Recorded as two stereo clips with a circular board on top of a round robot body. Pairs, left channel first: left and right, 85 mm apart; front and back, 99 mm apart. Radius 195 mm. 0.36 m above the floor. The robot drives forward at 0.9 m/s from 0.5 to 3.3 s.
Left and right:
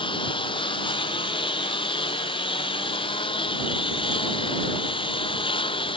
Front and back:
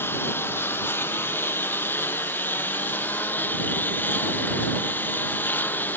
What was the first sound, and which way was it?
A lawn mower, 70° left.